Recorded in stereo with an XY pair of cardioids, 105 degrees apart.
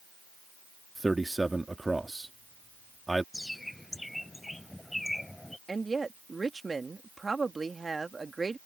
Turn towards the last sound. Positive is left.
turn(degrees=-25)